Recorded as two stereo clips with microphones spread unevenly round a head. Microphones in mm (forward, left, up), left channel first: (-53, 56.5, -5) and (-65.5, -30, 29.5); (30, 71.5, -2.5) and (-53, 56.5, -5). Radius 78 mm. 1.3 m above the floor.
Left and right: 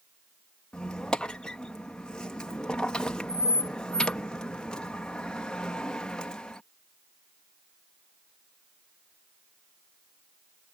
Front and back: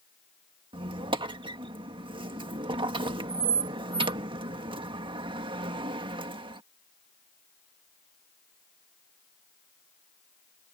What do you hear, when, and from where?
0.7 s a squeak: 170° left